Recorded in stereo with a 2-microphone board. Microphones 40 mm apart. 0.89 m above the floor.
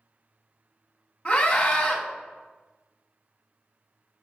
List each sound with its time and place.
1.2 s a scream: 30° left (ahead or behind), 0.8 m